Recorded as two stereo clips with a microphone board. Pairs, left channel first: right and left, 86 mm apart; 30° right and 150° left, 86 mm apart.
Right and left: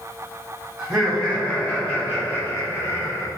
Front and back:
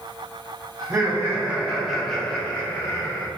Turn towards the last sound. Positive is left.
turn(degrees=-65)